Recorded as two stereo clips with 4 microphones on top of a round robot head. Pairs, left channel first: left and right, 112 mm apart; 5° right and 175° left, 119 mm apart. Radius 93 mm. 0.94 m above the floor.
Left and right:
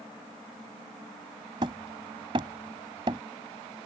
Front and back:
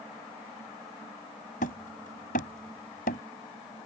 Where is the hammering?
30° right.